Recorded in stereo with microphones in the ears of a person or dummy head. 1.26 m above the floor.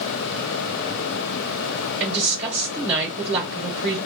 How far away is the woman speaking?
About 1.0 m.